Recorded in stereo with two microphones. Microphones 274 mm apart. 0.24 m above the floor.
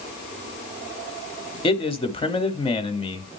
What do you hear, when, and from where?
1.6 s a man speaking: 20° left (ahead or behind), 0.9 m